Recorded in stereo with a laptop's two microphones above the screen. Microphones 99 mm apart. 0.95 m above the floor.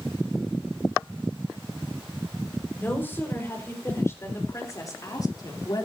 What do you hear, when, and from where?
2.8 s a woman speaking: 20° left (ahead or behind), 5 m; by 5.9 s 45° left (ahead or behind), 2.5 m